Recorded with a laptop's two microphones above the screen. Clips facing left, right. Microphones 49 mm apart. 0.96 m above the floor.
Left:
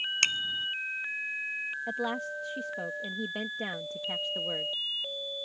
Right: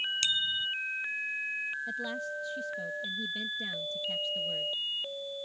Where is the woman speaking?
55° left (ahead or behind).